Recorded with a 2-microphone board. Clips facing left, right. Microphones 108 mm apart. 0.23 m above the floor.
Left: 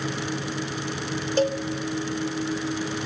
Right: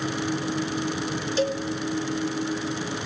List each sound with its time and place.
1.4 s a cowbell: 45° left (ahead or behind), 0.5 m